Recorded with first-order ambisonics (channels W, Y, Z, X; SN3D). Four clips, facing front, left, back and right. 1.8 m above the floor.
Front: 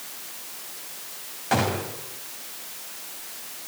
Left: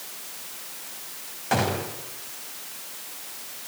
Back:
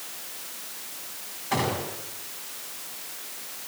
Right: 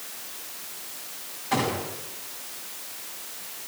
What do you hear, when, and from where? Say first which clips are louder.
1.5 s a gunshot: left 1 dB, front 3 dB; 45° left, 7 m